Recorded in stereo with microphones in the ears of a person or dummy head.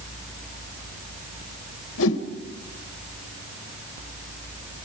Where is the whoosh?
75° left (ahead or behind), 2 m.